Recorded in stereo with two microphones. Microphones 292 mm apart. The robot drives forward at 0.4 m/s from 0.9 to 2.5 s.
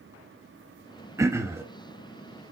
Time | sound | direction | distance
1.2 | throat clearing | 10° right (ahead or behind) | 1.1 m